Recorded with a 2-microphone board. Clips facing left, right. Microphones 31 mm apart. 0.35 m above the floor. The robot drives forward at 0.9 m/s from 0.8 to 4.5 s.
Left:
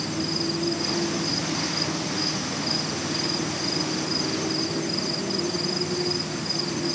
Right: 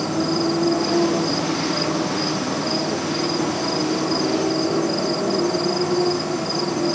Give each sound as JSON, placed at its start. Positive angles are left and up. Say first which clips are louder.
{"t": 0.0, "sound": "a motorcycle", "louder": "right 7 dB", "side_deg": -85}